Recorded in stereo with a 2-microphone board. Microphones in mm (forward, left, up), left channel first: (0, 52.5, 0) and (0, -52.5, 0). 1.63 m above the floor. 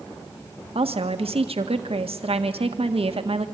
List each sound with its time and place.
0.8 s a woman speaking: 70° right (ahead or behind), 1.6 m